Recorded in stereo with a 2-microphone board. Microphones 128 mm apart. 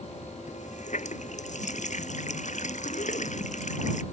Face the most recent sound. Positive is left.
turn(degrees=70)  # may be behind; listen again after turning